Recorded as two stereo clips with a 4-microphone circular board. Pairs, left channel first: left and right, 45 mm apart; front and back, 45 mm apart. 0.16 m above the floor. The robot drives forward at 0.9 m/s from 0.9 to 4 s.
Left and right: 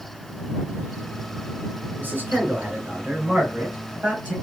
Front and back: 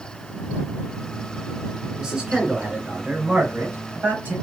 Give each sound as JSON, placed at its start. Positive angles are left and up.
{"t": 2.0, "sound": "a man speaking", "azimuth_deg": -105, "distance_m": 2.5}